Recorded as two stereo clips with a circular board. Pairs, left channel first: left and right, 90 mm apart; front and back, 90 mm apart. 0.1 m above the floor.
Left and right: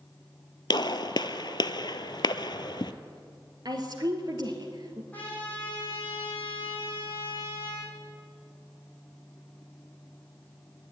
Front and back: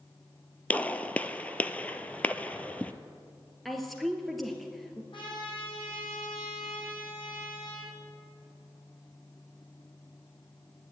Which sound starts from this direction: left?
A gunshot, at 0.7 s.